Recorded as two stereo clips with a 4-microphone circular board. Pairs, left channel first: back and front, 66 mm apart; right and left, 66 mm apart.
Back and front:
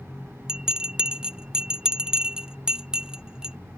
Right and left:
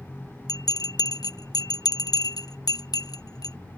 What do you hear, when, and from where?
0.5 s a bell: 75° right